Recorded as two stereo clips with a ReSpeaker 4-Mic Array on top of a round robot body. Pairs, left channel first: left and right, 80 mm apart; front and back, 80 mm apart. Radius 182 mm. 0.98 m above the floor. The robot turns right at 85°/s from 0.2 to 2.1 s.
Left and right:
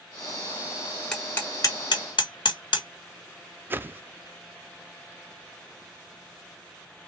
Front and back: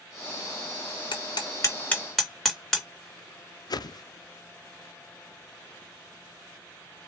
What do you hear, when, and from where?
1.1 s hammering: straight ahead, 1.6 m; by 2.9 s 85° left, 1.6 m
3.7 s a whoosh: 30° right, 0.5 m